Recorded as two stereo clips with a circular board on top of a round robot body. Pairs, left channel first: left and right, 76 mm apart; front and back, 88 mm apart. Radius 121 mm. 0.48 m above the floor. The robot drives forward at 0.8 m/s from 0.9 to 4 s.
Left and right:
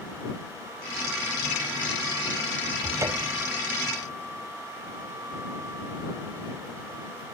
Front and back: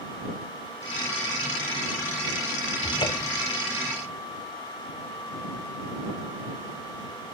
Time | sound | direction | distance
2.8 | a cupboard door | 35° right | 1.1 m